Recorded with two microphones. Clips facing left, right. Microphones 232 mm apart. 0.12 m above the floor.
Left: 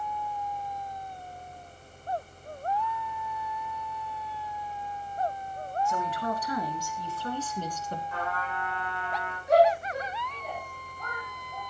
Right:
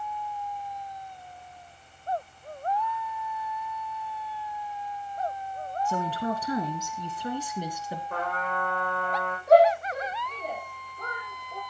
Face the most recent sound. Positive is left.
turn(degrees=-75)  # may be behind; listen again after turning